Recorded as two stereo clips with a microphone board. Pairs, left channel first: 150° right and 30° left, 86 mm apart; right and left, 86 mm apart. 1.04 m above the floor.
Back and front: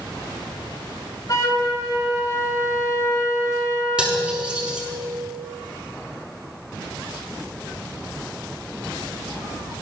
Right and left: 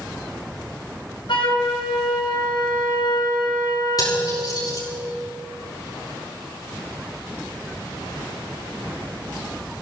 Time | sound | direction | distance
1.3 | a flute | 100° right | 3.5 m
4.0 | cutlery clinking | 50° right | 6.5 m